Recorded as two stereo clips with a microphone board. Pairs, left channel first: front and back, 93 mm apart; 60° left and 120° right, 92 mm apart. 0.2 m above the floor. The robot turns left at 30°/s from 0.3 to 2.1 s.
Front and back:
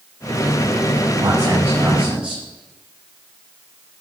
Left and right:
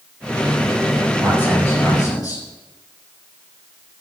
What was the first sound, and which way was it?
A man speaking, 130° left.